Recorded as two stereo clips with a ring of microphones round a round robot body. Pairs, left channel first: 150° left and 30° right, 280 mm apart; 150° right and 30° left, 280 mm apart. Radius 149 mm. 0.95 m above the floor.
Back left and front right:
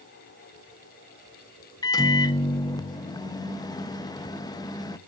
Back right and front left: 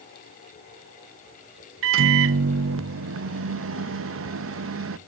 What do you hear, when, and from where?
1.8 s a microwave: 75° left, 0.5 m